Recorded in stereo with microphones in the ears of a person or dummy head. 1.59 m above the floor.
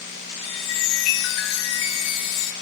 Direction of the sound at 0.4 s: 70° left (ahead or behind).